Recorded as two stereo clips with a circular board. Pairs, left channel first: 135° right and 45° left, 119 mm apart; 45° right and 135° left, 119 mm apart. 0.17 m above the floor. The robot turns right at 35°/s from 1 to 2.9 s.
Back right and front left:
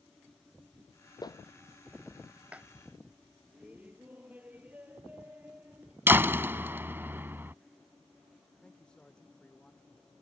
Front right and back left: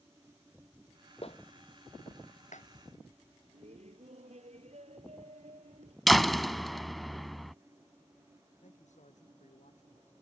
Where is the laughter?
120° left.